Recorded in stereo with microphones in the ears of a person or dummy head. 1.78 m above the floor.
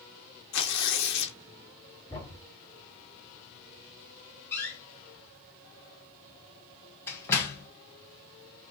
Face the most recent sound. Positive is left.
turn(degrees=15)  # may be behind; listen again after turning